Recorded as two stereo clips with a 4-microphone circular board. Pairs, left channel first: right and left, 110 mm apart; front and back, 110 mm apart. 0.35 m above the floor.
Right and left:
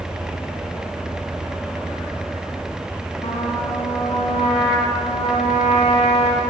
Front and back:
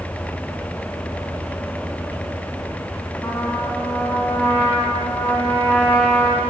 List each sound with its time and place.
3.2 s a trumpet: 75° right, 3.5 m